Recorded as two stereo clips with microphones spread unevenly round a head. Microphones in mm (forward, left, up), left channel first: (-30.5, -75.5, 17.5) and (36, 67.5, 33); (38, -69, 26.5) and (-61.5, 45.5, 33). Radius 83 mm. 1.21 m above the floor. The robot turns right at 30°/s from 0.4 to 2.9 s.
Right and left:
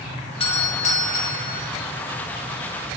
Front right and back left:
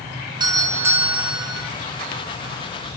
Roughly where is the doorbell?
Behind.